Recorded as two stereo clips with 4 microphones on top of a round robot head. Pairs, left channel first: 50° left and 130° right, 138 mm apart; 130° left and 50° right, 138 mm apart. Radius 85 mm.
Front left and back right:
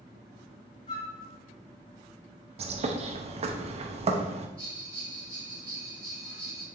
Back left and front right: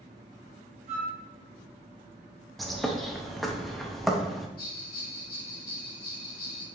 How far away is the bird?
About 0.6 m.